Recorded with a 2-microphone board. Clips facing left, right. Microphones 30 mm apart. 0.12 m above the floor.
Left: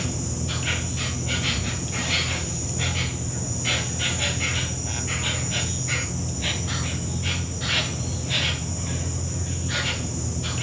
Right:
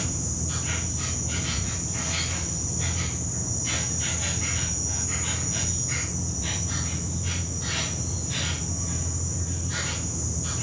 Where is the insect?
50° left (ahead or behind), 1.9 m.